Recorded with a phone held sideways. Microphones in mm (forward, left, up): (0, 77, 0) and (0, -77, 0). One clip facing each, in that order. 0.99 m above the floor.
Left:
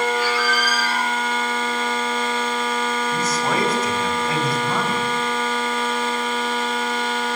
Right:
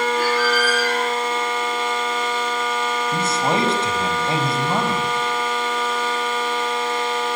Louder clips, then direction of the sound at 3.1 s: Right 3 dB; 30° right (ahead or behind).